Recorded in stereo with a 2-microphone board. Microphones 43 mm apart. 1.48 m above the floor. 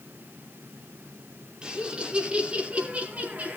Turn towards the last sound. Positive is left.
turn(degrees=-40)  # may be behind; listen again after turning